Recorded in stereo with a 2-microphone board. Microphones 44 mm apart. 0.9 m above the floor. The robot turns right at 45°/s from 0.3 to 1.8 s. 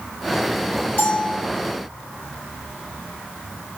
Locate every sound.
1.0 s a bell: 50° left (ahead or behind), 1.5 m; by 1.4 s 30° left (ahead or behind), 1.5 m